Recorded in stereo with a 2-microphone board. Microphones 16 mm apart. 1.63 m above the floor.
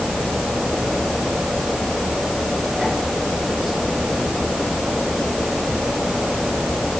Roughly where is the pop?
I don't hear a pop.